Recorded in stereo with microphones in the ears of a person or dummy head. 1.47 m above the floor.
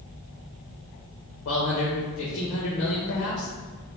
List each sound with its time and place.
1.4 s a man speaking: 70° left (ahead or behind), 1.1 m